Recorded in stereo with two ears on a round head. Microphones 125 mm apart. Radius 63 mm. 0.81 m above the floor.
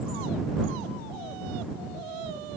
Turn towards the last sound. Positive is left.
No sound to turn to.